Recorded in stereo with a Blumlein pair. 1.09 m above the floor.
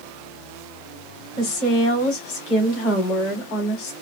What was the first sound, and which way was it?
A woman speaking, 40° left.